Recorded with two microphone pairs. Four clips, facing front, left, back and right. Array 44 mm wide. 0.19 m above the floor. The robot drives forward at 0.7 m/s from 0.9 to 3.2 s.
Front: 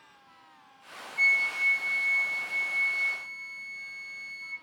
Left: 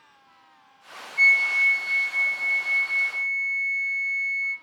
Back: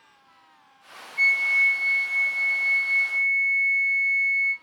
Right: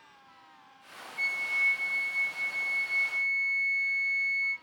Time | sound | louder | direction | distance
1.2 | a flute | left 10 dB, back 5 dB | 110° left | 0.7 m